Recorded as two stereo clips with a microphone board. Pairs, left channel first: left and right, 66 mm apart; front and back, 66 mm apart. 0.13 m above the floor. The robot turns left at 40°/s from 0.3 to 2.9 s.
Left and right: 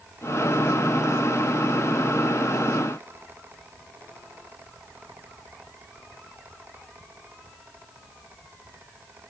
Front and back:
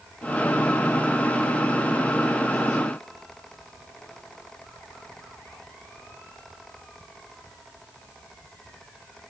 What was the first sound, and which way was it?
Only background noise.